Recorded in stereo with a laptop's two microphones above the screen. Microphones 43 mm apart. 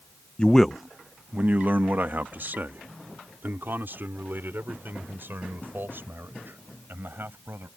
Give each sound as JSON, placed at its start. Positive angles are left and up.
{"t": 0.4, "sound": "a man speaking", "side_deg": 20}